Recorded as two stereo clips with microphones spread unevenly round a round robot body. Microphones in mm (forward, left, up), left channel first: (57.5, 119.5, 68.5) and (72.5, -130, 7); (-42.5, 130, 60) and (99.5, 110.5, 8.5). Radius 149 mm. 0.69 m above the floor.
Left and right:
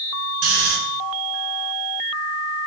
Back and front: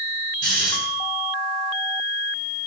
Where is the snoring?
70° right, 6.5 m.